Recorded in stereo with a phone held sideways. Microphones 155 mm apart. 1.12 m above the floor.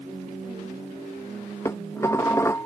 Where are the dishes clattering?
20° left (ahead or behind).